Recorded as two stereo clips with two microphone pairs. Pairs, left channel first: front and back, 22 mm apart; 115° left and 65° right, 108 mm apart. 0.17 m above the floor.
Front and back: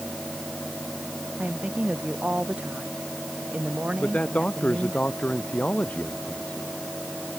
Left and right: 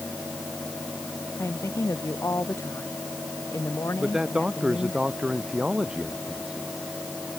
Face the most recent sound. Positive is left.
turn(degrees=15)